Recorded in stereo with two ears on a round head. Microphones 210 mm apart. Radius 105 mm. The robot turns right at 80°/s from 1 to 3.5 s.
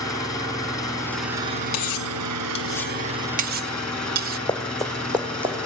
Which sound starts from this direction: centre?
Running footsteps, at 4.5 s.